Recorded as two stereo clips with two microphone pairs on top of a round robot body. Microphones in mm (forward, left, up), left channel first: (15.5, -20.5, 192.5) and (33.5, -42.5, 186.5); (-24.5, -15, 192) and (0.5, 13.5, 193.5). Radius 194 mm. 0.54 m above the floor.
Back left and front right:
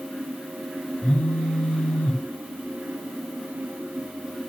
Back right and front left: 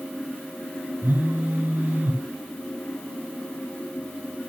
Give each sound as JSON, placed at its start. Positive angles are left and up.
{"t": 1.0, "sound": "a phone buzzing", "azimuth_deg": 90, "distance_m": 1.2}